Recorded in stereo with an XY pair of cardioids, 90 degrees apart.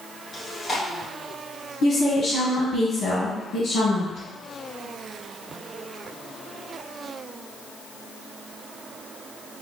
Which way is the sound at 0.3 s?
40° left.